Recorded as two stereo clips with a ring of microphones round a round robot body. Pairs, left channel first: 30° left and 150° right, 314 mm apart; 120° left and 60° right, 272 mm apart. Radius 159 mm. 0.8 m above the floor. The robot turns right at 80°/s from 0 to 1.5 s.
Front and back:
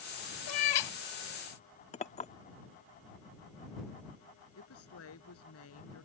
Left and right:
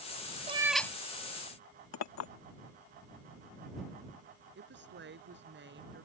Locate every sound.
0.5 s a cat meowing: 5° left; by 0.9 s 45° left
1.9 s a clink: 100° left
4.5 s a woman speaking: 15° right